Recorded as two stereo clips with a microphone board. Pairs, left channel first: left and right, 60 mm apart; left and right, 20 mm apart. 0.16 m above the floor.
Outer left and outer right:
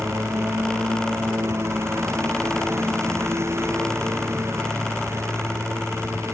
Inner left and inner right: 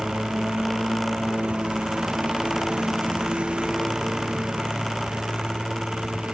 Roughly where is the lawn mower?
Right.